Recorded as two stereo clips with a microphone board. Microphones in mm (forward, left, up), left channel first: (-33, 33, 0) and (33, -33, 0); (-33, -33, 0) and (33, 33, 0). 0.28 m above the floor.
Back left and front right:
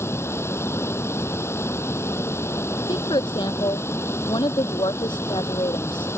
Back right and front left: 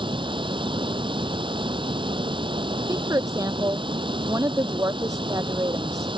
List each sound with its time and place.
0.0 s running water: 75° left
2.9 s a woman speaking: 100° left